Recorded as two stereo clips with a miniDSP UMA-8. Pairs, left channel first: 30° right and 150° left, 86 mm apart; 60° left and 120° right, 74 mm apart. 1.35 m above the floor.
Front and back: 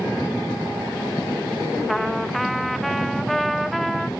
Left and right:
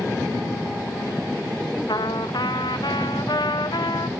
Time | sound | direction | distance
1.9 | a trumpet | 60° left | 0.9 m